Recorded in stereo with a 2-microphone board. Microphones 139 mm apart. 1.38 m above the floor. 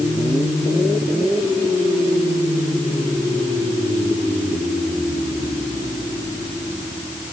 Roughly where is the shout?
No shout in this recording.